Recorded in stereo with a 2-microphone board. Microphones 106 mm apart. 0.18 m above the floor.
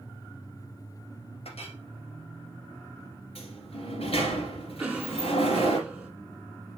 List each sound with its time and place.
1.4 s a clink: 70° left (ahead or behind), 2.0 m
3.4 s a sliding door: 65° left (ahead or behind), 3 m
4.8 s a cough: 10° right (ahead or behind), 2.5 m